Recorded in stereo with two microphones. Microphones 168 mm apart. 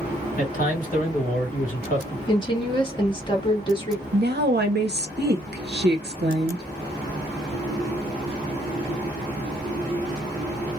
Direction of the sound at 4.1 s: 70° right (ahead or behind).